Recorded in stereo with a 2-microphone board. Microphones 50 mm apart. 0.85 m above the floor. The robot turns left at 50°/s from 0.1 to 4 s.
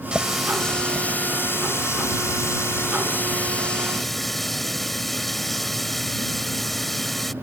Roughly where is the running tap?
Behind.